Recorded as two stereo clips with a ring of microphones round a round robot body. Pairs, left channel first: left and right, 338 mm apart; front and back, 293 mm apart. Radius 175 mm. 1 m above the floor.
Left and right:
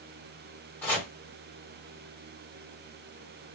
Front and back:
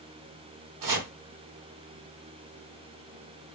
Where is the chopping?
175° left, 1.1 m.